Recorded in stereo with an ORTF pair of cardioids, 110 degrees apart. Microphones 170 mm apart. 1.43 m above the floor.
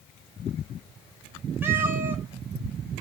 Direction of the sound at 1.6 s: 15° right.